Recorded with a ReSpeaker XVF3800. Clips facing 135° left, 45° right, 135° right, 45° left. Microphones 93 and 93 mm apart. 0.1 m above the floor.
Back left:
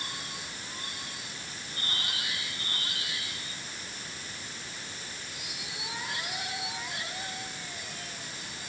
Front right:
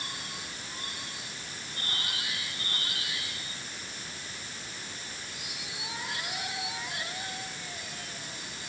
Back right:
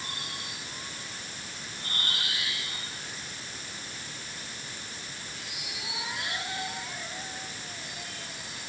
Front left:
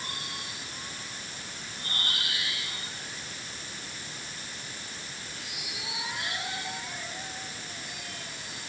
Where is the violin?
I don't hear a violin.